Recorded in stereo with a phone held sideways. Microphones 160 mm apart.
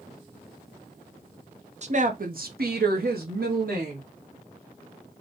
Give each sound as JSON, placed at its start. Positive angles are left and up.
{"t": 1.8, "sound": "a woman speaking", "side_deg": -45, "distance_m": 0.7}